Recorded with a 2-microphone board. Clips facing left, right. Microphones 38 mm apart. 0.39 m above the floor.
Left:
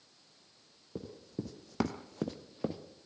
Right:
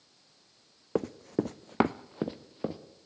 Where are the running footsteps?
70° right (ahead or behind), 1.0 m; by 2.8 s centre (ahead or behind), 1.8 m.